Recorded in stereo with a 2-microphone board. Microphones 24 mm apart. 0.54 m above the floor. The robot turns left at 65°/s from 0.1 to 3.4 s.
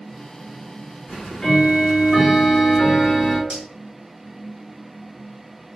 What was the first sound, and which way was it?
Ticking, 160° left.